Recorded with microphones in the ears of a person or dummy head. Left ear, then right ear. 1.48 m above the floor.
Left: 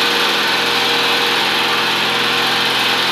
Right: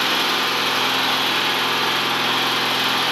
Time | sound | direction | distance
0.0 | an engine running | 10° left (ahead or behind) | 2.5 m